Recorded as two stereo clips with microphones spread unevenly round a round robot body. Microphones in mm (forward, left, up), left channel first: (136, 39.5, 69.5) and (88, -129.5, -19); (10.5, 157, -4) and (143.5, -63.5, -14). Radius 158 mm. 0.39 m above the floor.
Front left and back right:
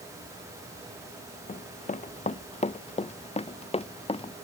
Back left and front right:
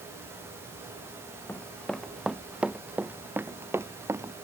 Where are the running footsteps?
40° left; by 4.3 s 20° left.